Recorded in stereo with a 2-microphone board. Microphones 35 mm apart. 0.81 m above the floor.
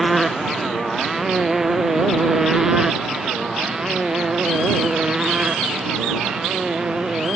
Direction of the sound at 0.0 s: Centre (ahead or behind).